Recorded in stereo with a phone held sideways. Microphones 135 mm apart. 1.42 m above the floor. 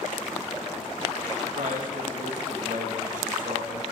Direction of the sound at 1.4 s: 85° right.